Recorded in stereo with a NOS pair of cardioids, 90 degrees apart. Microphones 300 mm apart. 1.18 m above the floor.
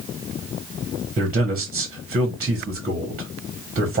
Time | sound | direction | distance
1.2 | a man speaking | 30° right | 1.1 m